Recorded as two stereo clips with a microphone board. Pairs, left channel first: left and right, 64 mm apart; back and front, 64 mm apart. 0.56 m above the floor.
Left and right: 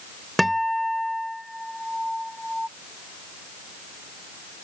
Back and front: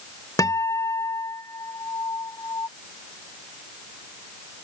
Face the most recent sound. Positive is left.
turn(degrees=180)